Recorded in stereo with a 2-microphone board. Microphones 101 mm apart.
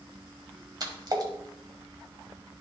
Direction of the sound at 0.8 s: 45° right (ahead or behind).